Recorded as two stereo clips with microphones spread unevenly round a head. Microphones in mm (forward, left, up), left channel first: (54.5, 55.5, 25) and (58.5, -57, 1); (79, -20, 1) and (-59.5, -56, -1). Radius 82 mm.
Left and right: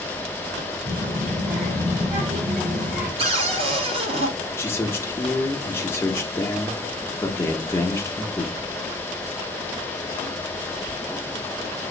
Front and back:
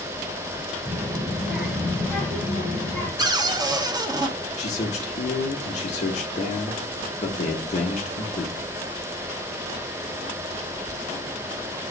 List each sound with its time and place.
0.8 s a child speaking: 85° right, 2.5 m; by 3.1 s 55° right, 3 m
3.2 s a cupboard door: 120° right, 0.7 m
4.6 s a man speaking: 40° left, 0.9 m